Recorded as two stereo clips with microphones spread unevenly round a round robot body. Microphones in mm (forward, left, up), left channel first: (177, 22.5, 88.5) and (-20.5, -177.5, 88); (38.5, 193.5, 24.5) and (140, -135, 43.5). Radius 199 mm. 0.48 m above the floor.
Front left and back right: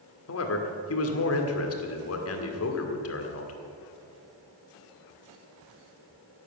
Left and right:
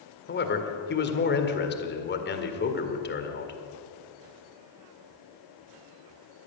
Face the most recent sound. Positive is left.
turn(degrees=55)